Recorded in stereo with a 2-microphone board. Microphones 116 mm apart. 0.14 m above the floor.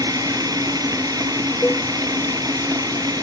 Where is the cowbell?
15° left (ahead or behind).